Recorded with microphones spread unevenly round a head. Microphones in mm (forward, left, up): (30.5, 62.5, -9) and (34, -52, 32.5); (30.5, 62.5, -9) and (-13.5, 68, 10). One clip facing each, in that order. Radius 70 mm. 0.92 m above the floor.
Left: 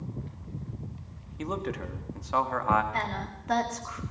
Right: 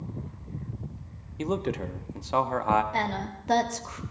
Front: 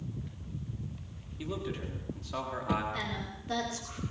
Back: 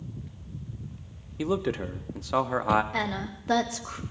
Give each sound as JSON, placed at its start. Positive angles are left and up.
{"t": 1.4, "sound": "a man speaking", "azimuth_deg": -160, "distance_m": 1.5}
{"t": 2.9, "sound": "a woman speaking", "azimuth_deg": -155, "distance_m": 2.0}